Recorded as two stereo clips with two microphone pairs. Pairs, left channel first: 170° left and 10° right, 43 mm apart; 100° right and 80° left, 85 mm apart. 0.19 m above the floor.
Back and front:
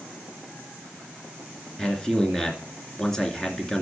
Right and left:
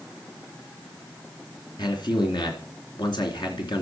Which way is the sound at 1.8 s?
115° right.